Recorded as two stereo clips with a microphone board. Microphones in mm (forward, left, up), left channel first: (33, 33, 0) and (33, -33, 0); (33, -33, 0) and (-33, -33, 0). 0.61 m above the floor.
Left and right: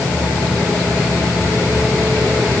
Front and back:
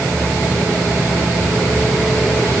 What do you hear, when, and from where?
Only background noise.